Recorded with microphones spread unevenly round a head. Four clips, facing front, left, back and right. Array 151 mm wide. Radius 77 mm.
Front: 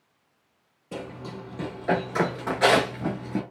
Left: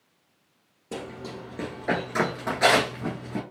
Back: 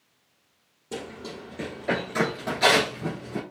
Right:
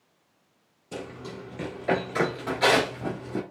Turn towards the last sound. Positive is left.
turn(degrees=-15)